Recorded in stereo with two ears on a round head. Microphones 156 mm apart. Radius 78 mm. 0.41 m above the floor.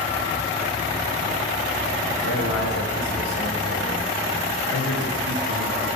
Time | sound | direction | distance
2.2 | a man speaking | 80° left | 6.5 m